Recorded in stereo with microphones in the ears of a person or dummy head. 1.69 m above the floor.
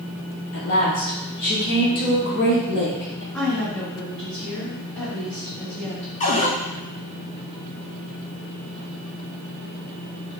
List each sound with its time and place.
0.5 s a woman speaking: 50° left (ahead or behind), 0.7 m
3.3 s a woman speaking: 5° left (ahead or behind), 1.5 m
6.2 s a cupboard door: 35° left (ahead or behind), 0.5 m